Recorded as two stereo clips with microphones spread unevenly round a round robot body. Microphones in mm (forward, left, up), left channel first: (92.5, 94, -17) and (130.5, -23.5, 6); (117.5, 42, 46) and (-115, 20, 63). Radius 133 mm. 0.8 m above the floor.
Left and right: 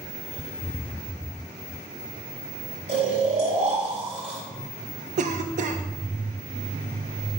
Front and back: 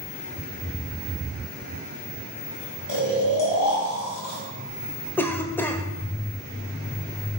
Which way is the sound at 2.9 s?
40° right.